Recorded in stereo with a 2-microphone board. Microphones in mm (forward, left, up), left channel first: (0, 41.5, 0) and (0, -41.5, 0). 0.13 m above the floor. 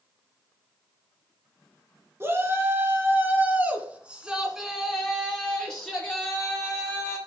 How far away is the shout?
About 2.5 m.